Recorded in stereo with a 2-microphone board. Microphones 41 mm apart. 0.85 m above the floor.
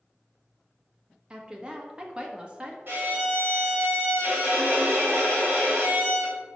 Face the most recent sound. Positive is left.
turn(degrees=-60)  # may be behind; listen again after turning